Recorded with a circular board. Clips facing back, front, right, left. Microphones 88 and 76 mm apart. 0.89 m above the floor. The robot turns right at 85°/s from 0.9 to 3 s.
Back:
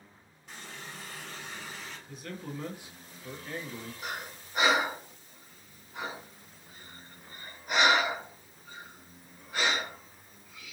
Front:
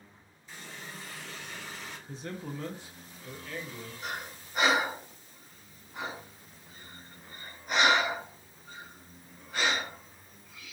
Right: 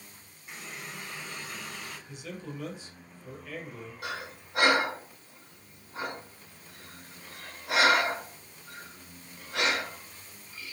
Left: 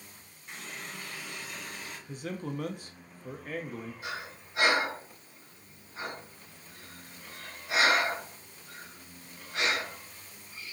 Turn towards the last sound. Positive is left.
turn(degrees=-95)